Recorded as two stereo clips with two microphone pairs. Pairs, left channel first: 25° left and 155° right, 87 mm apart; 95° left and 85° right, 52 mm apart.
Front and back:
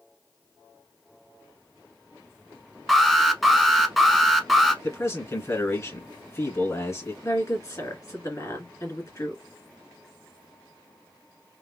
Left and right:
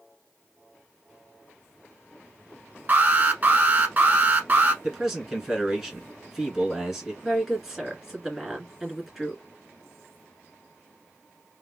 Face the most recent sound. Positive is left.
turn(degrees=0)